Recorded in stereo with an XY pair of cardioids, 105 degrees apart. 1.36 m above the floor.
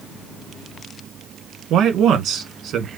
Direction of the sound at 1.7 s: 70° right.